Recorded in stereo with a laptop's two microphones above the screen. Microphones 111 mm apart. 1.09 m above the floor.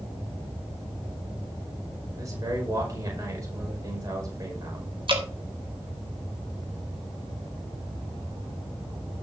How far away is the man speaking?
About 5 m.